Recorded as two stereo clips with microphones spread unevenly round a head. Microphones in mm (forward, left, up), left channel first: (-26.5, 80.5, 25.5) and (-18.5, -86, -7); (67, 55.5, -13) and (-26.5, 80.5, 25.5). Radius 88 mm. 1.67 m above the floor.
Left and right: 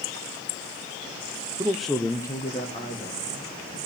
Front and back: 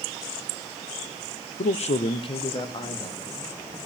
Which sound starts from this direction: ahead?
A man speaking, at 1.6 s.